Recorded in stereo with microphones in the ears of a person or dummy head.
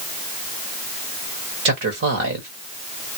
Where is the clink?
I don't hear a clink.